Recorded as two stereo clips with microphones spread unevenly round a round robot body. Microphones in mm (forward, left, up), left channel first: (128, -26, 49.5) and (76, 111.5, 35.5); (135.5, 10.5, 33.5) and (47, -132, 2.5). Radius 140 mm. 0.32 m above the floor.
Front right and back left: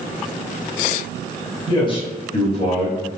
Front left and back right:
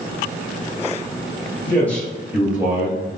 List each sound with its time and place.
1.7 s a man speaking: 25° right, 1.7 m; by 3.0 s 70° right, 1.9 m